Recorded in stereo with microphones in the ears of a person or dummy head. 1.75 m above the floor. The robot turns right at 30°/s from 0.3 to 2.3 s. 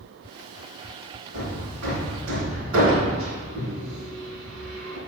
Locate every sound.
1.3 s hammering: 65° right (ahead or behind), 2.5 m; by 5.0 s 80° right, 2.5 m